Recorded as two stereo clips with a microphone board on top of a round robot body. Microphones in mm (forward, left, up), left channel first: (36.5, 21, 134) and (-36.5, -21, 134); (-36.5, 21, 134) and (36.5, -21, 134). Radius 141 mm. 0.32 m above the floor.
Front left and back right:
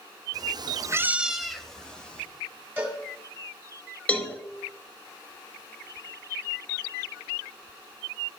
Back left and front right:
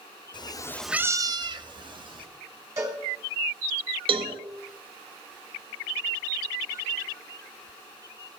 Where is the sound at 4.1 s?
45° right, 0.9 m.